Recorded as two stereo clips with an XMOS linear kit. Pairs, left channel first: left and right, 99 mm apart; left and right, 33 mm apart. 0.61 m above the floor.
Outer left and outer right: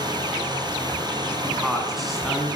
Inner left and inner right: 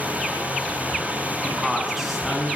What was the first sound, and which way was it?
Running water, 40° right (ahead or behind).